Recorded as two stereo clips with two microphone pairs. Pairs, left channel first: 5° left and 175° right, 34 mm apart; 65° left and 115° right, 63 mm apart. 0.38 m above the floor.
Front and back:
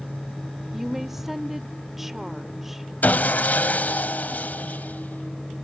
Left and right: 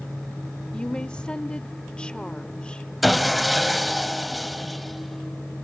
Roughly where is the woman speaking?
Behind left.